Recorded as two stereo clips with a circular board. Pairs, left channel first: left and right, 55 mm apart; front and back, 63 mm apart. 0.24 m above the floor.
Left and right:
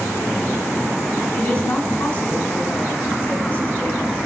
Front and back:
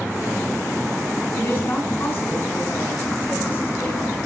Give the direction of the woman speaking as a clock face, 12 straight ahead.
11 o'clock.